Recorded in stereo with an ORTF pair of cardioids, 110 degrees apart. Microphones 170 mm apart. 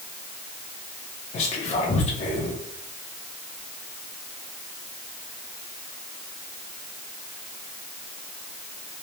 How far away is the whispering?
About 0.6 m.